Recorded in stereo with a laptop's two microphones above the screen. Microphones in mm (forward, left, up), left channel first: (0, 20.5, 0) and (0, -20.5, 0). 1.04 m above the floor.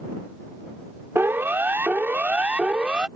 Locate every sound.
1.1 s a siren: 65° right (ahead or behind); by 3.1 s 20° right (ahead or behind)